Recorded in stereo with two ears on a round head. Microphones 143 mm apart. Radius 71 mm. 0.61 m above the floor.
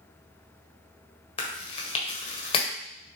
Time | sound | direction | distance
1.4 | chewing | 35° left (ahead or behind) | 1.6 m